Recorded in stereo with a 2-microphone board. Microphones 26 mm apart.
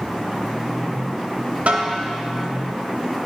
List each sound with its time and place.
1.7 s a snare drum: 70° right (ahead or behind), 1.0 m